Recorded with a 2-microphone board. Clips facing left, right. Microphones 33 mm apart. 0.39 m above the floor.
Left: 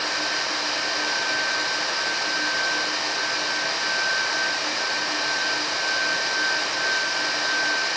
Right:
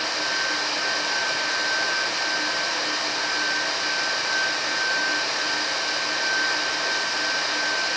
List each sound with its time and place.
Only background noise.